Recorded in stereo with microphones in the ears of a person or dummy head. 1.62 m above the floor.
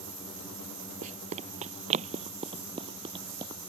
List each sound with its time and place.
1.0 s running footsteps: 45° right (ahead or behind); by 3.7 s 25° right (ahead or behind)